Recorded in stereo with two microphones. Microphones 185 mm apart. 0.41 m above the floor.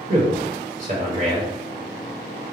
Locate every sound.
0.1 s a man speaking: 45° right (ahead or behind), 1.5 m